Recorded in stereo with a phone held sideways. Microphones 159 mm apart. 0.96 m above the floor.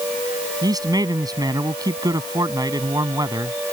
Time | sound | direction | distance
0.6 | a man speaking | 25° right (ahead or behind) | ?